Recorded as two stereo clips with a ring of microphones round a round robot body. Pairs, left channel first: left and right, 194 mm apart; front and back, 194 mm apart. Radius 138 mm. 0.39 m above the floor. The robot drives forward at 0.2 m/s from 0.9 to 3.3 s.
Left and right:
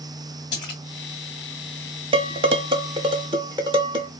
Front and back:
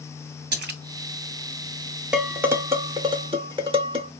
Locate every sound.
0.5 s a splash: 160° left, 1.3 m
2.1 s dishes clattering: 100° right, 0.6 m; by 4.1 s 135° right, 0.7 m